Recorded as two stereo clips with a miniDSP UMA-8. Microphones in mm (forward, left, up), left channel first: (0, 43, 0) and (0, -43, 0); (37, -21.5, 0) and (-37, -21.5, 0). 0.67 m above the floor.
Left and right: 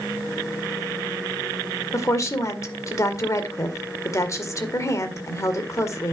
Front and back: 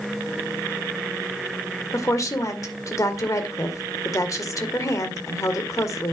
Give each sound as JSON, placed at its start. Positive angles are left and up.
{"t": 1.9, "sound": "a woman speaking", "azimuth_deg": 40, "distance_m": 1.8}